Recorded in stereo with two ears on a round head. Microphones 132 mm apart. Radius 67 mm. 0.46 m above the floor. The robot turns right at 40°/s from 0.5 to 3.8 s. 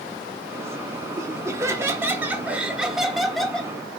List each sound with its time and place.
1.2 s laughter: 20° right (ahead or behind), 0.7 m; by 3.7 s 5° left (ahead or behind), 0.7 m